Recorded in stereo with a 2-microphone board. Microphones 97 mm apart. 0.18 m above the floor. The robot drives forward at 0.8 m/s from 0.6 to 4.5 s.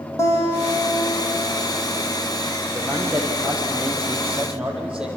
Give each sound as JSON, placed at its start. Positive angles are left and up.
{"t": 0.2, "sound": "a guitar", "side_deg": 30, "distance_m": 8.0}
{"t": 2.7, "sound": "a man speaking", "side_deg": -10, "distance_m": 8.0}